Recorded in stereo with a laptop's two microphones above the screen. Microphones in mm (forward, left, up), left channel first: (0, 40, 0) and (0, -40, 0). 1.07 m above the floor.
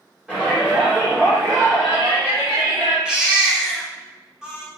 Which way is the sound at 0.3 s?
15° right (ahead or behind).